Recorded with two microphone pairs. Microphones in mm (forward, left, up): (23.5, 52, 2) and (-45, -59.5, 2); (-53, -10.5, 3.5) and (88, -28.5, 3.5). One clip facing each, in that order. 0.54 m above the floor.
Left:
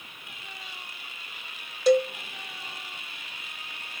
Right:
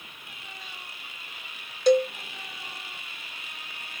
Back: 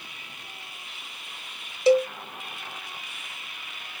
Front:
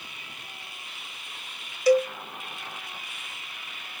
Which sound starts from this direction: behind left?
A cowbell, at 1.9 s.